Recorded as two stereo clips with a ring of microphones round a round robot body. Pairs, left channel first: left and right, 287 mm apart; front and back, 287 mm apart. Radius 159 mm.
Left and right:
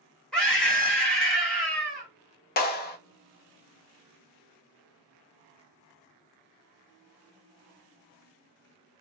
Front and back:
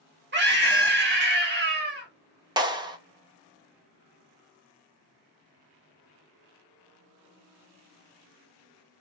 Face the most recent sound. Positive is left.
turn(degrees=115)